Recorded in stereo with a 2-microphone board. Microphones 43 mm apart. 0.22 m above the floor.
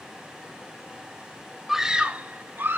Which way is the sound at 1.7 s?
Centre (ahead or behind).